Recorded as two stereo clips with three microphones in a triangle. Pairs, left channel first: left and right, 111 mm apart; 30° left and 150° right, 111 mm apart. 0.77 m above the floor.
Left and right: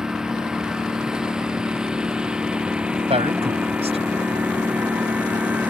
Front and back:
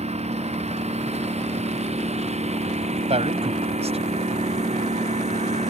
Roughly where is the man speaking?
Behind right.